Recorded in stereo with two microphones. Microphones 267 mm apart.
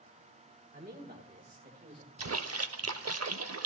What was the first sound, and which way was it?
A man speaking, 35° right (ahead or behind).